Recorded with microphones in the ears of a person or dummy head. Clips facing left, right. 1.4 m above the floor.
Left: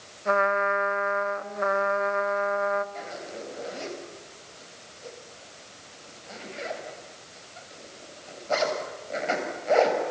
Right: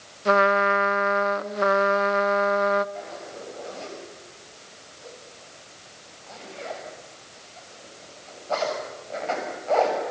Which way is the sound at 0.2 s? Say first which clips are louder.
Right 4 dB; 40° right (ahead or behind).